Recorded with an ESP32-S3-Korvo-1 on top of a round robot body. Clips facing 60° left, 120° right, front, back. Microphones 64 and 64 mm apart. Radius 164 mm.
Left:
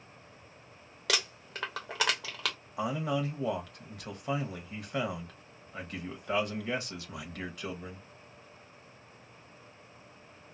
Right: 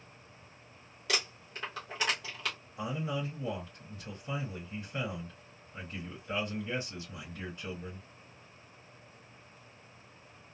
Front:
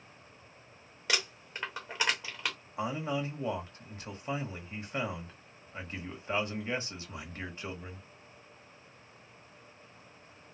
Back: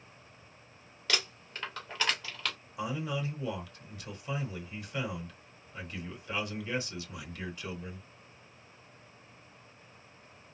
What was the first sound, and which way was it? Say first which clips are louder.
Crumpling: left 2 dB, front 1 dB; 75° left.